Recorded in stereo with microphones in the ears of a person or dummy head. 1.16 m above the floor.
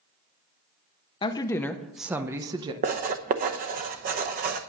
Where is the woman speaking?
25° left (ahead or behind), 0.9 m; by 2.7 s 25° right (ahead or behind), 1.1 m.